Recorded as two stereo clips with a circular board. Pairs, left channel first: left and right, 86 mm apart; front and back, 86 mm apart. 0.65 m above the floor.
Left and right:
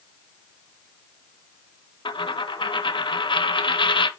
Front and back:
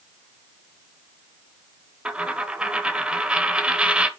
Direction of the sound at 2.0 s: 100° left.